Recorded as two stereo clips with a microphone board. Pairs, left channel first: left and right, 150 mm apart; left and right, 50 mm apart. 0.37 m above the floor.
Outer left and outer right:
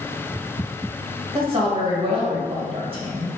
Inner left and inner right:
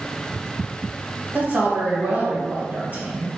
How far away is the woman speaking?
About 1.2 m.